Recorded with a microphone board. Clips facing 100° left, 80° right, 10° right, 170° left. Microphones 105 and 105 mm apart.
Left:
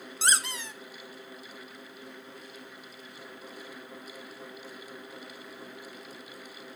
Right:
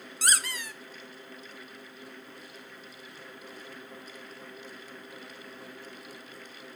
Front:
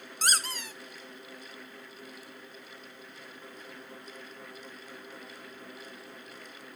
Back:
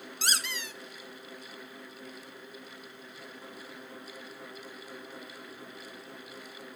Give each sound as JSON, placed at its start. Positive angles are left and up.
{"t": 0.2, "sound": "a squeak", "azimuth_deg": 35, "distance_m": 0.9}